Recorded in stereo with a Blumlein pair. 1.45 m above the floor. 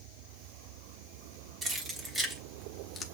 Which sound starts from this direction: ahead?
Keys jangling, at 1.6 s.